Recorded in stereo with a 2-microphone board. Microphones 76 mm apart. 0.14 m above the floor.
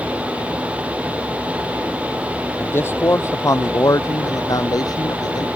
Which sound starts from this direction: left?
A man speaking, at 2.6 s.